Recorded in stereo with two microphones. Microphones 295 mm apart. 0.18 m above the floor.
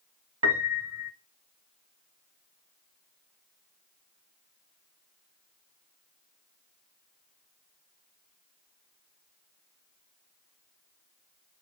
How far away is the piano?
About 0.6 m.